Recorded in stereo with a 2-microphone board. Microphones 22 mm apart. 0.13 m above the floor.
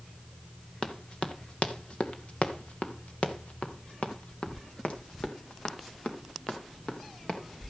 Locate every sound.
0.8 s running footsteps: 50° left (ahead or behind), 2.0 m; by 7.4 s 65° left (ahead or behind), 3.5 m